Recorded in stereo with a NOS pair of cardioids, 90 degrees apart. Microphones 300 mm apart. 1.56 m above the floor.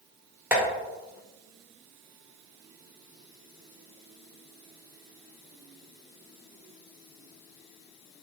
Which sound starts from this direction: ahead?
Tapping, at 0.5 s.